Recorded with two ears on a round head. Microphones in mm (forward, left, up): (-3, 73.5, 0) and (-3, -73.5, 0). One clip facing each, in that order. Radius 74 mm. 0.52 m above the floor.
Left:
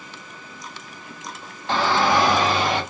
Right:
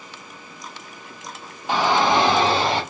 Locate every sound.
1.7 s a shout: 10° right (ahead or behind), 1.0 m; by 2.8 s 30° right (ahead or behind), 1.5 m